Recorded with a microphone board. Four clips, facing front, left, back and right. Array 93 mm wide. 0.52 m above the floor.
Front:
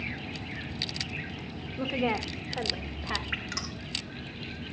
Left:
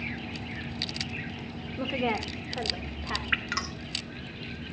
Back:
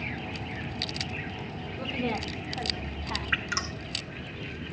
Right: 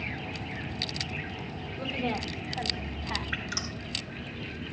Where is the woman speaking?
55° left, 1.3 m; by 3.2 s 35° left, 2.5 m.